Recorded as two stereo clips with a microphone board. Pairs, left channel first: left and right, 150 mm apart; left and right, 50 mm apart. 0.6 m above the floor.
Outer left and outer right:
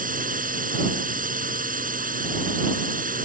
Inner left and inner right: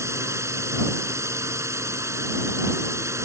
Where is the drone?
70° right (ahead or behind).